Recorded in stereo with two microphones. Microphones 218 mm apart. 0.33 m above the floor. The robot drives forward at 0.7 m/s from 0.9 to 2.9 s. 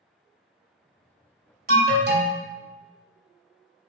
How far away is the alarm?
About 1.1 m.